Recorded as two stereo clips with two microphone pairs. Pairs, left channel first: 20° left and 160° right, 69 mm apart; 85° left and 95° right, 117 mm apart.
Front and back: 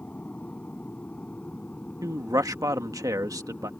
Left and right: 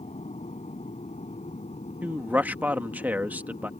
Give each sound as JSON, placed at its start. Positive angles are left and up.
{"t": 0.0, "sound": "an aircraft", "azimuth_deg": 90}
{"t": 2.0, "sound": "a man speaking", "azimuth_deg": -165}